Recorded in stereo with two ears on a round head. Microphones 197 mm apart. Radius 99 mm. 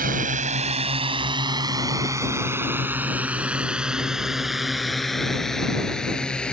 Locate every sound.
0.0 s a drone: 40° right (ahead or behind); by 6.5 s 5° left (ahead or behind)